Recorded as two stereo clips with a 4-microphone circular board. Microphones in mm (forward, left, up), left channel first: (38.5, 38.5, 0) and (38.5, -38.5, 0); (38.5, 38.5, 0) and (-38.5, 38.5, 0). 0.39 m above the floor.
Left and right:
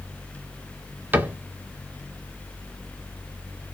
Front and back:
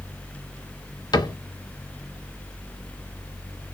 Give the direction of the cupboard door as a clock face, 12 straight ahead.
1 o'clock.